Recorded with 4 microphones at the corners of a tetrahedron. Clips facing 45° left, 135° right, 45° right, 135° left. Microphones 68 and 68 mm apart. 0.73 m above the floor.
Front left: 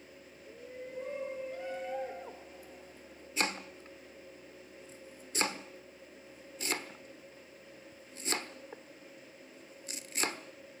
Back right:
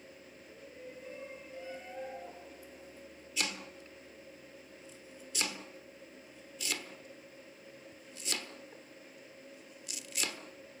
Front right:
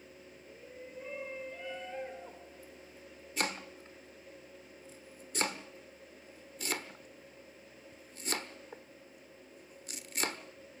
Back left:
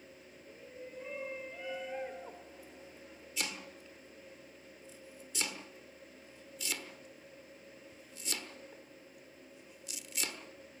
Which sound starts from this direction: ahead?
Chopping, at 3.4 s.